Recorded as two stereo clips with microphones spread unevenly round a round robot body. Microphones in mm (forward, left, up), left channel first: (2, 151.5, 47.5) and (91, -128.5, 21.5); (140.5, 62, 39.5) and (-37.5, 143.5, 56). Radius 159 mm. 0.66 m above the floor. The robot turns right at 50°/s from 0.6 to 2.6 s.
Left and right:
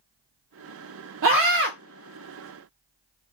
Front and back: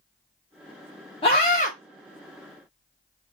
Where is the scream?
75° right, 0.8 m; by 1.7 s 50° right, 0.8 m.